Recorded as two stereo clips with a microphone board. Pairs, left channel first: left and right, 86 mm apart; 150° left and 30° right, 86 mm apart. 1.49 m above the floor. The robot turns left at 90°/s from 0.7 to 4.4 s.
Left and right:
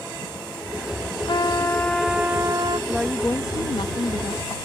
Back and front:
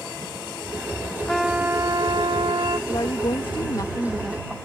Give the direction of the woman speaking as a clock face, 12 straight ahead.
6 o'clock.